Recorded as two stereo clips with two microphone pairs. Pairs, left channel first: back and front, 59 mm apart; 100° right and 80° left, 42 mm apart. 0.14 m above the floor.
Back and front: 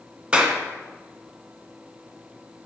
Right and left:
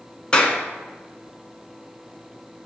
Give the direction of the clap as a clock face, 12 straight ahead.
2 o'clock.